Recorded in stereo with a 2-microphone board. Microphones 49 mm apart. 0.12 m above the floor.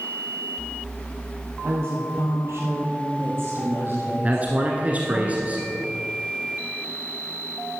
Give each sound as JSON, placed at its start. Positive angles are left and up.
{"t": 1.6, "sound": "a woman speaking", "side_deg": -60, "distance_m": 2.5}
{"t": 4.2, "sound": "a man speaking", "side_deg": -30, "distance_m": 1.3}